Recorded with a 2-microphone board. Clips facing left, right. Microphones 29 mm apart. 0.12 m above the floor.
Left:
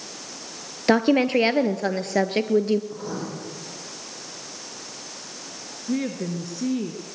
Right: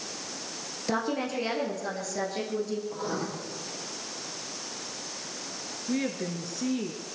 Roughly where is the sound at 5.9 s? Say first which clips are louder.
Left 4 dB; centre.